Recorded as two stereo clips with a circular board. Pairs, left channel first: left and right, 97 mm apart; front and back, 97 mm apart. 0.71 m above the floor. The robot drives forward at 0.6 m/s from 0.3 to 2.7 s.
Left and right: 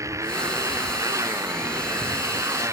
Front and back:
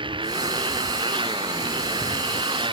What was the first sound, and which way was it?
A motorcycle, 150° right.